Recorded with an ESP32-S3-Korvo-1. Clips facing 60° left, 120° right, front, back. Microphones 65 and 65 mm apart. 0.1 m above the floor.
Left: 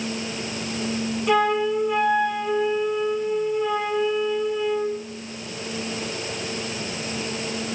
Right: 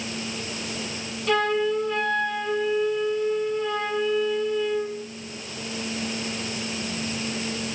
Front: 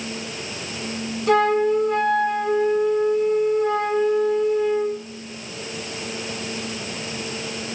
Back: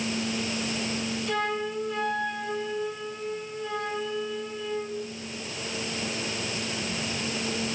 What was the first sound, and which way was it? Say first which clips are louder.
A flute: left 2 dB, front 14 dB; 15° right.